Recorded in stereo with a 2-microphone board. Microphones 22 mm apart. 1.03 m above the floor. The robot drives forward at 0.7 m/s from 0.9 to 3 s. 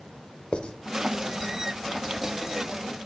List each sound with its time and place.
0.5 s writing: 55° left (ahead or behind), 1.1 m